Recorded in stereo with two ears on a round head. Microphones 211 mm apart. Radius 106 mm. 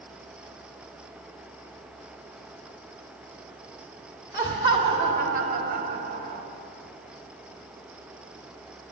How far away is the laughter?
About 0.9 m.